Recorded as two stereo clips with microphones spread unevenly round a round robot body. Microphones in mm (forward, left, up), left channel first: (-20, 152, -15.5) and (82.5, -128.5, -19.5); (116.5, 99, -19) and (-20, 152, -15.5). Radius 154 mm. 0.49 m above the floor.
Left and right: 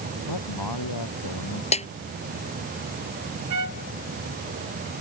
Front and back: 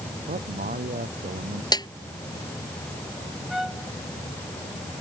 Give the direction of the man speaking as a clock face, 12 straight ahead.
7 o'clock.